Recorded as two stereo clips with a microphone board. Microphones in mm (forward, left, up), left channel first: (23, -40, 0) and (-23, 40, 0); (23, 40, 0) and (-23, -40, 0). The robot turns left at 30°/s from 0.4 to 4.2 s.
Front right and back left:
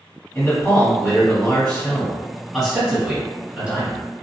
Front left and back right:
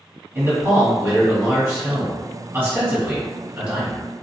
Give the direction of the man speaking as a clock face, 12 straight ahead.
3 o'clock.